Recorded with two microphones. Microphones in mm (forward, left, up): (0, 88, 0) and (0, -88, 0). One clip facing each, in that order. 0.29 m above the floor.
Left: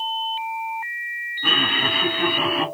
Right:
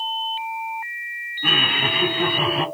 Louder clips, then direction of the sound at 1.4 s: Even; 10° right (ahead or behind).